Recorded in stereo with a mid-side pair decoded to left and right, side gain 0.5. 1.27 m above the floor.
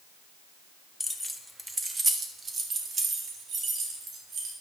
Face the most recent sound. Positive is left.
turn(degrees=-60)